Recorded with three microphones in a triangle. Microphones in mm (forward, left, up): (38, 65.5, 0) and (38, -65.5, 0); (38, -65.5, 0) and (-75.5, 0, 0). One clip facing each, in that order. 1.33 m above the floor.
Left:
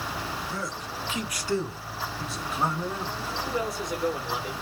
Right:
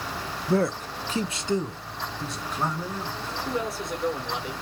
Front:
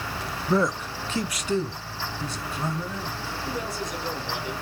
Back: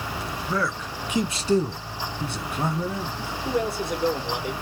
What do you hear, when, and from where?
0.5 s a man speaking: 90° right, 0.5 m; by 3.4 s 170° left, 1.4 m
3.5 s a man speaking: straight behind, 1.6 m